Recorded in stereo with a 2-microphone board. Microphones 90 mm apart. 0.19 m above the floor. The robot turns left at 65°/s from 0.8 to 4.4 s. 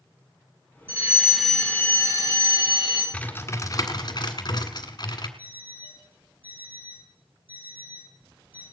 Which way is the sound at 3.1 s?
15° left (ahead or behind).